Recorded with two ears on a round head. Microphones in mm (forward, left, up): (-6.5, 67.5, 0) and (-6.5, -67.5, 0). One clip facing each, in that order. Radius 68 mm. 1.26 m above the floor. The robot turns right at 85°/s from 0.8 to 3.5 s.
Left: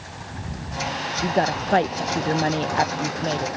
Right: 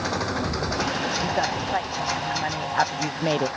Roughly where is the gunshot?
No gunshot in this recording.